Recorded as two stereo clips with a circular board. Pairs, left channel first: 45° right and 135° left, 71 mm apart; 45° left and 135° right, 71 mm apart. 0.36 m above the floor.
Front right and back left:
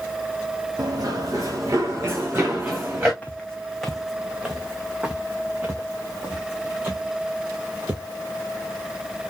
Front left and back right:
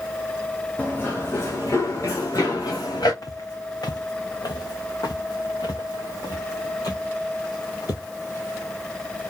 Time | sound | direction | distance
0.8 | running footsteps | 110° left | 1.4 m
3.2 | footsteps | 25° left | 0.8 m